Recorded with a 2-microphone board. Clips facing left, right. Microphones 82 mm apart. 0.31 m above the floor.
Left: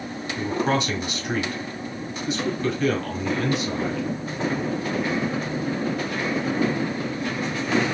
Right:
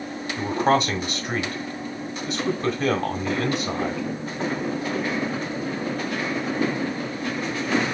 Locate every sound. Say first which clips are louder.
0.4 s a man speaking: right 3 dB; 40° right (ahead or behind), 2 m